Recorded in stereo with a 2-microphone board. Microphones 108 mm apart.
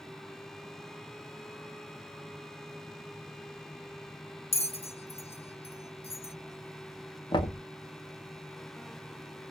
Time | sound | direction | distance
4.5 | a bell | 65° left (ahead or behind) | 0.5 m
7.3 | knocking | 45° left (ahead or behind) | 0.8 m